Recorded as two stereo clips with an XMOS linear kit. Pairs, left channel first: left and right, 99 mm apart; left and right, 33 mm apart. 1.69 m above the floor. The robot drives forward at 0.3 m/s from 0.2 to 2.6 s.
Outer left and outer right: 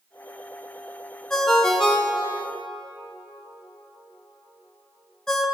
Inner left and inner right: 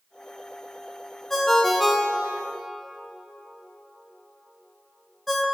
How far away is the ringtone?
About 0.6 m.